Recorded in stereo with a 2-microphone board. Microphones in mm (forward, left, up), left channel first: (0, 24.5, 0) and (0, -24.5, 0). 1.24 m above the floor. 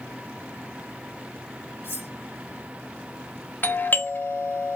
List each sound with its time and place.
1.8 s cutlery clinking: 45° left (ahead or behind), 2.0 m
3.6 s a doorbell: 40° left (ahead or behind), 0.7 m